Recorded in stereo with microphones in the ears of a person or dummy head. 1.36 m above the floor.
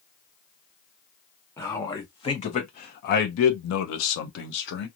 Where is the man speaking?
20° left (ahead or behind), 1.3 m; by 4.9 s 55° left (ahead or behind), 1.0 m.